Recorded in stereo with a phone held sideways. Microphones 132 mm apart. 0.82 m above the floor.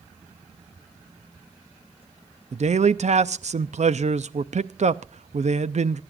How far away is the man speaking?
About 0.6 m.